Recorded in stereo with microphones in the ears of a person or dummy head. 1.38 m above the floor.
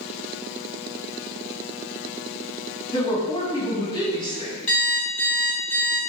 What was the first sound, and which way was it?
A woman speaking, 25° left (ahead or behind).